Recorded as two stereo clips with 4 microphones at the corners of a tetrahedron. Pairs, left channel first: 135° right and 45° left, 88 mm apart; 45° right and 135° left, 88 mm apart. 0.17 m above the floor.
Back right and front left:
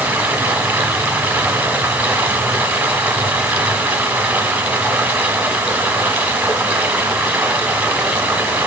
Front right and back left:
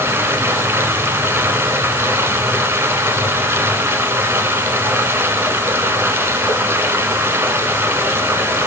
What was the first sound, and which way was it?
Running water, 105° left.